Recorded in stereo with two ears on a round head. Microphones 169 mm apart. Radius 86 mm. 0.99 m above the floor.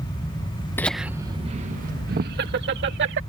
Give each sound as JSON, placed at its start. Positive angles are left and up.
{"t": 0.8, "sound": "laughter", "side_deg": 10}